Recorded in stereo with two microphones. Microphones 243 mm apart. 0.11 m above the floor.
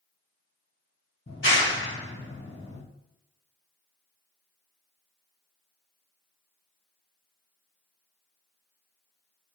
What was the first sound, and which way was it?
A clap, 50° left (ahead or behind).